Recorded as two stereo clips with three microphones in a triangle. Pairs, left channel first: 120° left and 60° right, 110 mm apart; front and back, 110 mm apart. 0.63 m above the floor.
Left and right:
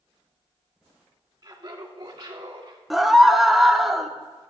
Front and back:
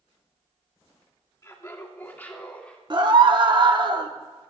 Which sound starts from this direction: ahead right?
Laughter, at 1.4 s.